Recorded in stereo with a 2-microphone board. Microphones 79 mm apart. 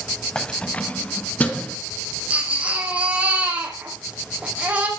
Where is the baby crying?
20° right (ahead or behind), 4.5 m.